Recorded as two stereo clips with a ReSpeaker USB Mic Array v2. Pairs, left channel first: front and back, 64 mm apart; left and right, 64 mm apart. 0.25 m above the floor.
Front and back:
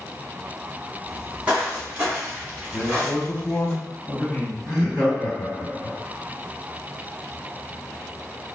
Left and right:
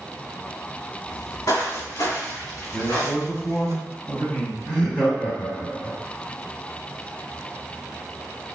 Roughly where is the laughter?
Behind left.